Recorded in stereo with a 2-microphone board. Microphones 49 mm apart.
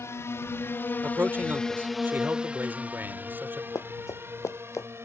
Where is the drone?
65° left (ahead or behind); by 5.1 s 55° right (ahead or behind).